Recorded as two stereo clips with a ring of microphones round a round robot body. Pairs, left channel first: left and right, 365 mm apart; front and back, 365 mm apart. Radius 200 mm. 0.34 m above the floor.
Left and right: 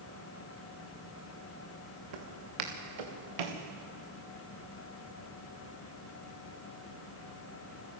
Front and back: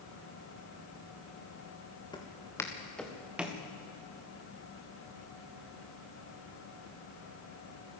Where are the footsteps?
80° right, 4 m; by 3.6 s 95° right, 3 m.